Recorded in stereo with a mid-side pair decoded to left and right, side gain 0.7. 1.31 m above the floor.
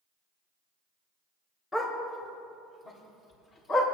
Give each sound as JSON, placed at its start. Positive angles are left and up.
{"t": 1.7, "sound": "a dog barking", "azimuth_deg": 20, "distance_m": 2.5}